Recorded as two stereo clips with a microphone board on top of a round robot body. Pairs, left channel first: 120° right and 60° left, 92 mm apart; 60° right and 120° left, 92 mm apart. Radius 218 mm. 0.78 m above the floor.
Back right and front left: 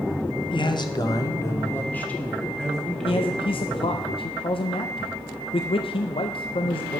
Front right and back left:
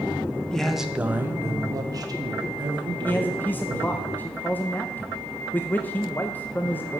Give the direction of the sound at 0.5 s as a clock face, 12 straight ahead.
5 o'clock.